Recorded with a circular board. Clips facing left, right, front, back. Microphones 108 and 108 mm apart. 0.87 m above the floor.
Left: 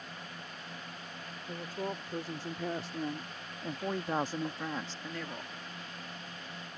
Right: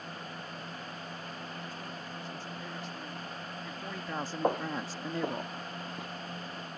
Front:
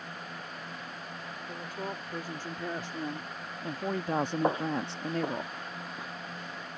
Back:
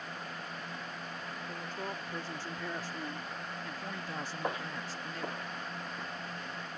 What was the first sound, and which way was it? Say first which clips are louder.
A woman speaking: left 4 dB, front 3 dB; 80° left.